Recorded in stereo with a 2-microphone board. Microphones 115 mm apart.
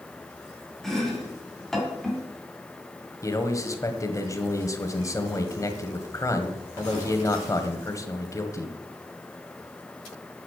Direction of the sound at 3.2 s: 25° left (ahead or behind).